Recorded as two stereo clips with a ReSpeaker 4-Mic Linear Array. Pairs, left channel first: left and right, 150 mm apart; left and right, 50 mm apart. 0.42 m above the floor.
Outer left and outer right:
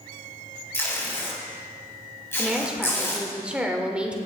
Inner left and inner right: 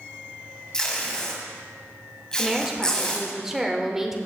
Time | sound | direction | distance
0.7 | tape being pulled | 15° left (ahead or behind) | 2 m
2.4 | a woman speaking | 10° right (ahead or behind) | 1.2 m